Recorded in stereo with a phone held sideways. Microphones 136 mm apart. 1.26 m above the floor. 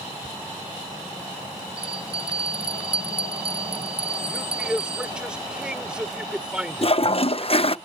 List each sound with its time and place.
0.2 s ticking: 20° right (ahead or behind)
1.8 s a bell: 40° right (ahead or behind)
4.3 s a man speaking: 5° right (ahead or behind)
6.8 s a toilet flushing: 45° left (ahead or behind)